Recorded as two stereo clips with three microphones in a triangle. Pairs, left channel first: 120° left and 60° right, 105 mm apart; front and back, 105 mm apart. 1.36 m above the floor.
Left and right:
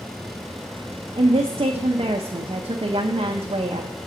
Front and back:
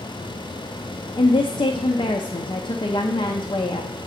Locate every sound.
1.2 s a woman speaking: 35° right, 0.5 m